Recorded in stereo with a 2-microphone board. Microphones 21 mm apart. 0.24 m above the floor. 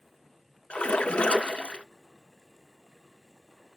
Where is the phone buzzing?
No phone buzzing in this recording.